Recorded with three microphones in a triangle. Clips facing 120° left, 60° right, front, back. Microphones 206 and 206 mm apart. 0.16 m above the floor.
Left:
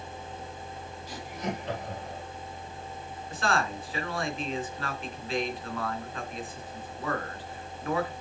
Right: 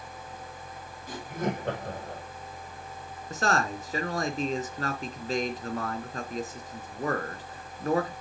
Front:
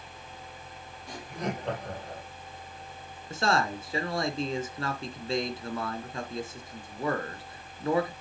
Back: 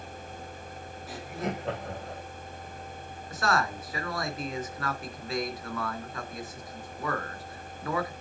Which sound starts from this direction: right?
Laughter, at 1.1 s.